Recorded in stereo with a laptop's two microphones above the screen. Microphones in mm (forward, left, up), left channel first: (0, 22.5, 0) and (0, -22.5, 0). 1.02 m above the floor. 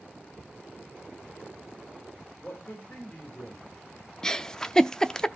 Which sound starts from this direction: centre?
A giggle, at 4.2 s.